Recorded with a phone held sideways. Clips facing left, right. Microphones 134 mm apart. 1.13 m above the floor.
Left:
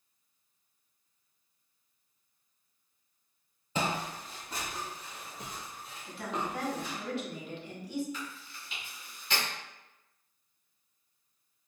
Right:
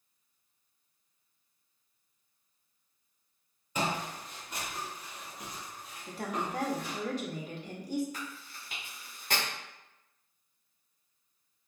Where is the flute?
I don't hear a flute.